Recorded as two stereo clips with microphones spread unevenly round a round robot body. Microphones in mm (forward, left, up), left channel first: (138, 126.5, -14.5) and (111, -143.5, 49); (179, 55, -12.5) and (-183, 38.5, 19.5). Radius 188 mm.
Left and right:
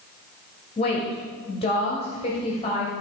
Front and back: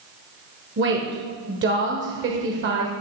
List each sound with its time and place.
0.8 s a woman speaking: 130° left, 1.0 m